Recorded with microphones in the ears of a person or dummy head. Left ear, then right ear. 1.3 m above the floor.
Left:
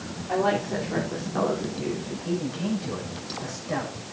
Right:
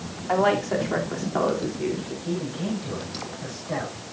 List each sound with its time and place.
0.3 s a woman speaking: 55° right (ahead or behind), 3 m; by 2.1 s 15° right (ahead or behind), 4 m
2.2 s a man speaking: 10° left (ahead or behind), 6 m